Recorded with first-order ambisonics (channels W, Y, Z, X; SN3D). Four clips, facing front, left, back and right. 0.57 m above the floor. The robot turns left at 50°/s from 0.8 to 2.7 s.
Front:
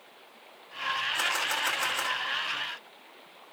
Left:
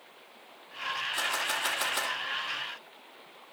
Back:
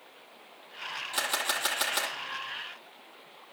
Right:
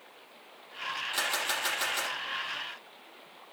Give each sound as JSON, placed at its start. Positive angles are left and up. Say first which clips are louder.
{"t": 1.1, "sound": "a camera shutter", "louder": "right 1 dB, front 2 dB", "azimuth_deg": -150, "distance_m": 8.5}